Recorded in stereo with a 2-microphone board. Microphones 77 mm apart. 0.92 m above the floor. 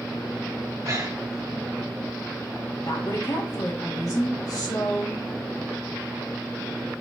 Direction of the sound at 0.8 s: 50° right (ahead or behind).